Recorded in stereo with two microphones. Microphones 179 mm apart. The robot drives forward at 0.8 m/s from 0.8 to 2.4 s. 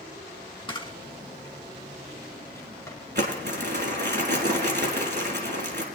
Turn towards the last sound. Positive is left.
turn(degrees=-70)  # may be behind; listen again after turning